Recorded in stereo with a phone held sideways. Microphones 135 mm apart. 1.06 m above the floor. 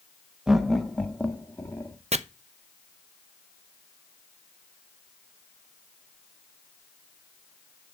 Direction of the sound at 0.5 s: 5° right (ahead or behind).